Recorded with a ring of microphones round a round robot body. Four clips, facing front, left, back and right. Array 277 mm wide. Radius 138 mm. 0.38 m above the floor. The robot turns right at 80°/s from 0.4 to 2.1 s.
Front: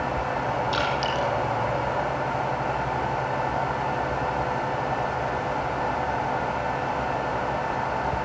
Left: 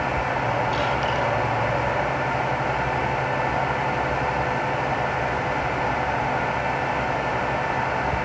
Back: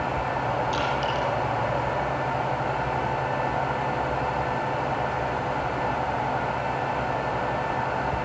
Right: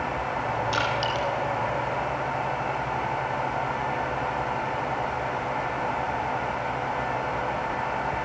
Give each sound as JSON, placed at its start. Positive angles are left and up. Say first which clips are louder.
{"t": 0.7, "sound": "crushing", "louder": "left 3 dB, even", "azimuth_deg": -65, "distance_m": 6.5}